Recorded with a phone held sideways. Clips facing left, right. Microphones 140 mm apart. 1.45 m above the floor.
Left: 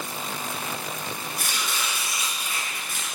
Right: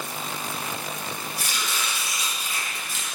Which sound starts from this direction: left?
Chopping, at 1.4 s.